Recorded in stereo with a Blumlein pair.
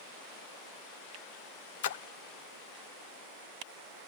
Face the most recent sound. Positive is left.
turn(degrees=55)